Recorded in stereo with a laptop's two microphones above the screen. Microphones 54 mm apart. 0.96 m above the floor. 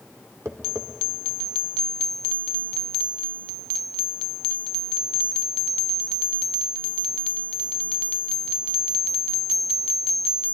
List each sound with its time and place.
0.5 s tapping: 60° right (ahead or behind), 1.0 m